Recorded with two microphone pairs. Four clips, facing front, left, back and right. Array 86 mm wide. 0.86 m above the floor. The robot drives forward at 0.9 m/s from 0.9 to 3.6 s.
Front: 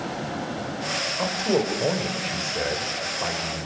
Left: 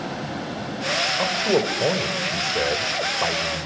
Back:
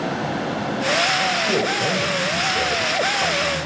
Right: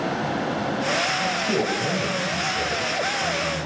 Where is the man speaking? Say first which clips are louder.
Left 2 dB, back 3 dB; 70° left, 4 m; by 3.7 s 100° left, 4 m.